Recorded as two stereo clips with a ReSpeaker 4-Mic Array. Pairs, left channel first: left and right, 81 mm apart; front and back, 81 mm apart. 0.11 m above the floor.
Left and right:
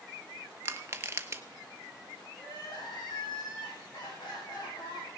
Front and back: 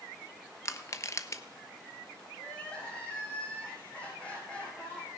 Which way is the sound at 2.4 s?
75° left.